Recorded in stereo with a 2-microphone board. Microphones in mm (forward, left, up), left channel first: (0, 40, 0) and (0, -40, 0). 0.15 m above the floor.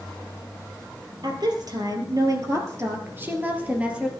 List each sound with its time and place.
1.2 s a woman speaking: 60° right (ahead or behind), 3.5 m; by 4.1 s 10° right (ahead or behind), 3 m